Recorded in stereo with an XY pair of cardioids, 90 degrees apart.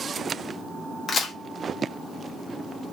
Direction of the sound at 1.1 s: 55° left.